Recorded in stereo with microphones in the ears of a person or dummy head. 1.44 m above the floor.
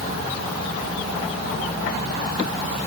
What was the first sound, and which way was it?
Only background noise.